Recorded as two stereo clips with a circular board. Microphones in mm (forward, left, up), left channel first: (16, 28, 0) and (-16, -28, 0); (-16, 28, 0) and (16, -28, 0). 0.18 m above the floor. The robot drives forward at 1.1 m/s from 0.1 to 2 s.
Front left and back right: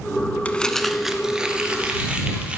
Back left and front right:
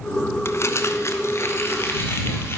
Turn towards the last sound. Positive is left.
turn(degrees=170)